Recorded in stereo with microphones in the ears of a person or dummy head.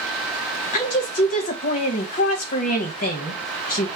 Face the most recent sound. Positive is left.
turn(degrees=40)  # may be behind; listen again after turning